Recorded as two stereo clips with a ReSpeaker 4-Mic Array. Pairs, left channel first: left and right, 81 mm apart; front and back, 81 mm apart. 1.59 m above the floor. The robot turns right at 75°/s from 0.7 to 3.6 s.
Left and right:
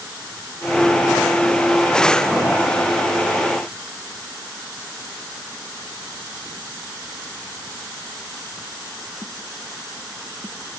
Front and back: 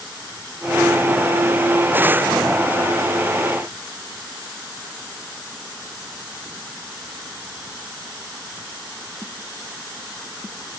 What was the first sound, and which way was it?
Only background noise.